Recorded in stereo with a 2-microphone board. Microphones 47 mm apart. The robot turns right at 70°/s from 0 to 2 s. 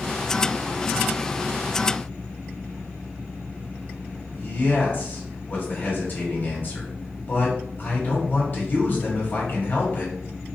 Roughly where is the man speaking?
Left.